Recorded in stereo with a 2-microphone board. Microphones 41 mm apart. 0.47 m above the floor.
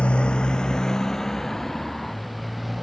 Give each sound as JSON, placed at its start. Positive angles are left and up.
{"t": 0.0, "sound": "a motorcycle", "side_deg": 25}